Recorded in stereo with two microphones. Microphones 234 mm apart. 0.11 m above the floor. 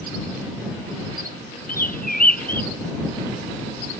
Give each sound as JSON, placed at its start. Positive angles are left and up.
{"t": 1.7, "sound": "a bird", "side_deg": 35}